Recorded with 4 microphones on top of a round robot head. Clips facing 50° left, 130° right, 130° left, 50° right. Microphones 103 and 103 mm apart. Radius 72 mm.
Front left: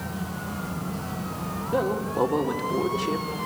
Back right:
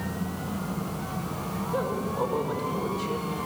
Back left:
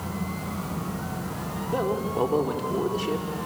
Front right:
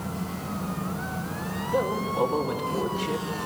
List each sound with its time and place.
1.7 s a man speaking: 70° left, 3 m